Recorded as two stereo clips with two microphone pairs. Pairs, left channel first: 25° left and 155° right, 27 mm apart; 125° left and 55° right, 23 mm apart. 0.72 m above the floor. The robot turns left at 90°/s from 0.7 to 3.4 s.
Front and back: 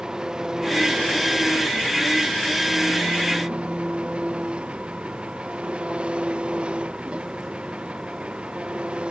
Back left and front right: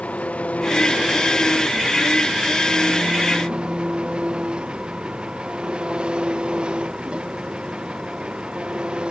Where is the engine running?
140° left; by 9.1 s 100° right.